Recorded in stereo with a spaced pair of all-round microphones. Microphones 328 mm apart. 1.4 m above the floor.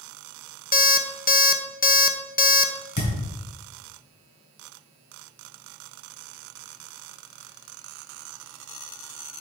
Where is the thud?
60° left (ahead or behind), 3 m.